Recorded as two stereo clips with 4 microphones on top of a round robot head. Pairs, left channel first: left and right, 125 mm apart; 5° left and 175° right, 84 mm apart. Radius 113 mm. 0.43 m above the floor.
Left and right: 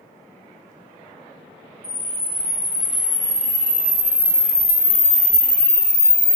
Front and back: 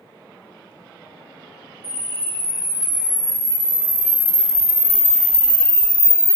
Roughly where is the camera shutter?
Behind.